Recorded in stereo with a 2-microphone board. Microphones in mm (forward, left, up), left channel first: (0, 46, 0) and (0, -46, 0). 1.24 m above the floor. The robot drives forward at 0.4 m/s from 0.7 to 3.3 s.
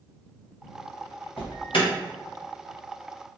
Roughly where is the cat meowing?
I don't hear a cat meowing.